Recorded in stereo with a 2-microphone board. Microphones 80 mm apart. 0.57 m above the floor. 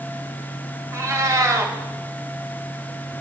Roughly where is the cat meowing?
Right.